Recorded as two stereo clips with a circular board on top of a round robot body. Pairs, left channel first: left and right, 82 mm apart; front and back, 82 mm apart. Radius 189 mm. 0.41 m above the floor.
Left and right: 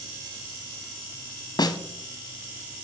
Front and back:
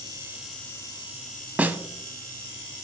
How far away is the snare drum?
About 1.1 m.